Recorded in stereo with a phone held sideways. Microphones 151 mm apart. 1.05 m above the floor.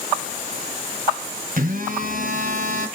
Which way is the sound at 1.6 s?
70° right (ahead or behind).